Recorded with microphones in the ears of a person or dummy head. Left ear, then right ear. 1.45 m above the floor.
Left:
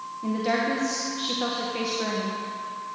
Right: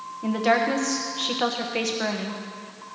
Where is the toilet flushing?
I don't hear a toilet flushing.